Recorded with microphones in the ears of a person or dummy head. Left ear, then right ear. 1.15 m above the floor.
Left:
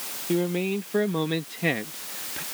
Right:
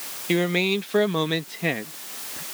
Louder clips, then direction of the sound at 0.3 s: Right 4 dB; 70° right (ahead or behind).